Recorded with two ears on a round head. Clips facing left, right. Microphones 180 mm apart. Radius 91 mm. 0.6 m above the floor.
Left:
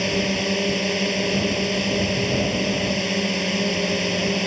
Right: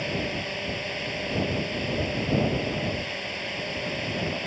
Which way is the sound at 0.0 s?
55° left (ahead or behind).